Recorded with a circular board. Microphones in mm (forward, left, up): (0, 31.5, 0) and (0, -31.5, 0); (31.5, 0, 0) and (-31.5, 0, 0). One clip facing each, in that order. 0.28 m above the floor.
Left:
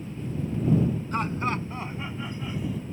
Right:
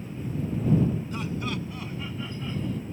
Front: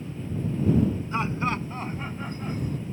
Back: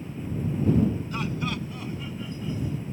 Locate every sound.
1.1 s laughter: 55° left; by 2.8 s 5° left